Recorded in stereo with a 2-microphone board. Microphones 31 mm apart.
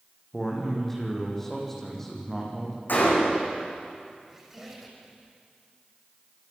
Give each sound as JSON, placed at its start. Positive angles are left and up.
{"t": 0.3, "sound": "a man speaking", "side_deg": 10, "distance_m": 8.5}
{"t": 2.9, "sound": "a gunshot", "side_deg": 80, "distance_m": 8.0}
{"t": 4.3, "sound": "a squeak", "side_deg": -10, "distance_m": 6.5}